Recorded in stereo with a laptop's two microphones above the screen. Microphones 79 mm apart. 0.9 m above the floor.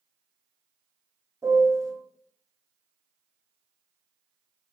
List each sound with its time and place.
1.4 s a piano: 40° right (ahead or behind), 0.6 m